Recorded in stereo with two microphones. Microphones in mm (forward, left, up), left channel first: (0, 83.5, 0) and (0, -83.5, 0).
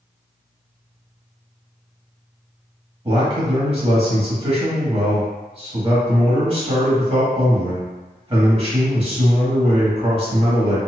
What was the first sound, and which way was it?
A man speaking, 35° right (ahead or behind).